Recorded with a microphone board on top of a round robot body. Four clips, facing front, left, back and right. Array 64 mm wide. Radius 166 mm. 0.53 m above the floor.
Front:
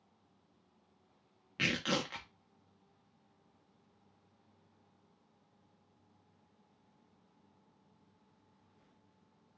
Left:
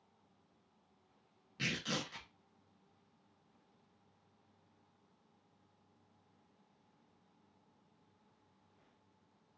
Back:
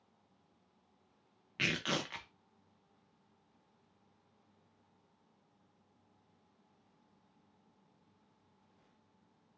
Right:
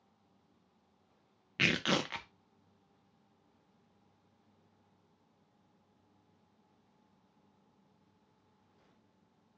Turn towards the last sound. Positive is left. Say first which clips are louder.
# right 8 dB, front 2 dB
turn(degrees=-90)